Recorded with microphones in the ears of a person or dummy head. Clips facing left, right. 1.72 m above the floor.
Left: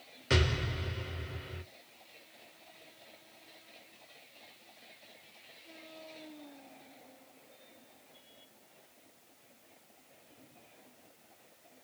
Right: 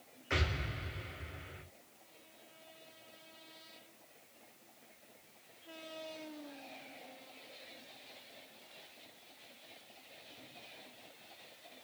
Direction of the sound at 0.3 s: 50° left (ahead or behind).